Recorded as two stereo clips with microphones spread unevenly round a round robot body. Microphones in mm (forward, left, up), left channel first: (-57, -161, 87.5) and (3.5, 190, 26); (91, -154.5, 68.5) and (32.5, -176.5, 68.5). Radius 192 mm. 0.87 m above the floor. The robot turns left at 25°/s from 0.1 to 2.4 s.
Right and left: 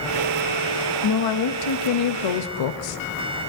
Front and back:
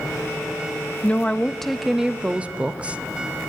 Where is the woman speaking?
50° right, 0.7 m; by 3.0 s 85° right, 0.7 m.